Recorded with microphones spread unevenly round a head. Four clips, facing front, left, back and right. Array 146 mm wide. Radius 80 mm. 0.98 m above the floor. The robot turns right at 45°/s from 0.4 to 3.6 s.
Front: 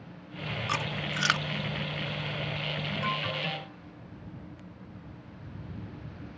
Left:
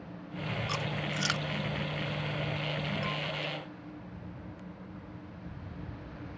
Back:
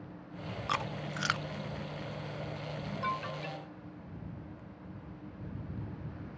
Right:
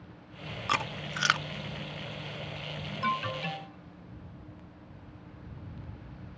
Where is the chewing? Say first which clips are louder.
Right 8 dB, front 1 dB; 70° right; by 1.5 s 35° right.